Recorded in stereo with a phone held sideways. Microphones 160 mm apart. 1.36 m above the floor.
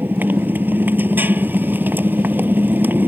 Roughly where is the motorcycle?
Centre.